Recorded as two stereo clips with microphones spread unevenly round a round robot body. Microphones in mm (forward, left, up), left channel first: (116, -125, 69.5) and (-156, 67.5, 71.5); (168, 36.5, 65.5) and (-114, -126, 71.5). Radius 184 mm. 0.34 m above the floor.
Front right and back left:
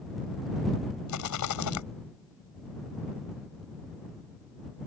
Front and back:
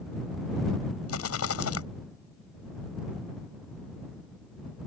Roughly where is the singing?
I don't hear singing.